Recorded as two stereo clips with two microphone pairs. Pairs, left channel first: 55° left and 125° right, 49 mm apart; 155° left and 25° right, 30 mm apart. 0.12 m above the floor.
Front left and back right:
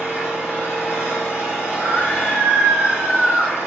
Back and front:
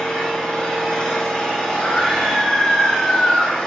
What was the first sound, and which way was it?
An engine running, 90° left.